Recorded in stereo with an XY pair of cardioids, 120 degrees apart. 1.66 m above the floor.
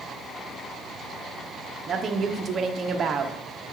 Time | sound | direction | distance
1.9 | a woman speaking | 35° right | 1.0 m